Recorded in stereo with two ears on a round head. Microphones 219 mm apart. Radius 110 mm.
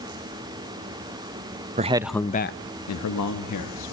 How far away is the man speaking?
About 0.7 m.